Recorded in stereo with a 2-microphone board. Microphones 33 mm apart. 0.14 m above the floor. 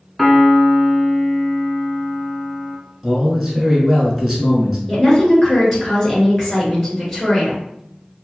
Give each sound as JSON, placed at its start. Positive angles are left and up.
{"t": 0.2, "sound": "a piano", "side_deg": 5, "distance_m": 0.6}
{"t": 3.0, "sound": "a man speaking", "side_deg": -10, "distance_m": 1.3}
{"t": 4.9, "sound": "a woman speaking", "side_deg": 10, "distance_m": 1.9}